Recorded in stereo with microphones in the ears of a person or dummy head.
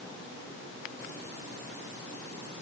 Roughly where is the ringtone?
I don't hear a ringtone.